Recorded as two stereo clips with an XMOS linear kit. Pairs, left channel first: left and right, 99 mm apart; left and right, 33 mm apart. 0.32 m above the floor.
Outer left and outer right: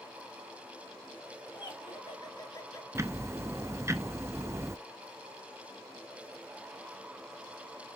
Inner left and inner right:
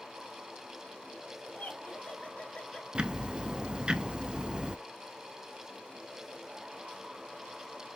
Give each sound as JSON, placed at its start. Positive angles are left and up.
{"t": 1.5, "sound": "laughter", "side_deg": 55, "distance_m": 2.5}
{"t": 3.0, "sound": "ticking", "side_deg": -25, "distance_m": 0.5}